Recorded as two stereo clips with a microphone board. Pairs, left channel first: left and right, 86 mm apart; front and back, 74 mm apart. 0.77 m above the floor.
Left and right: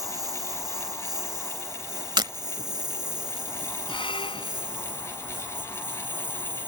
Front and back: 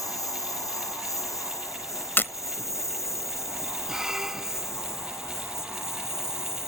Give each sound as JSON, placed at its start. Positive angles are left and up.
{"t": 0.0, "sound": "a lawn mower", "azimuth_deg": -45}
{"t": 2.2, "sound": "breaking glass", "azimuth_deg": -60}
{"t": 3.9, "sound": "a squeak", "azimuth_deg": 100}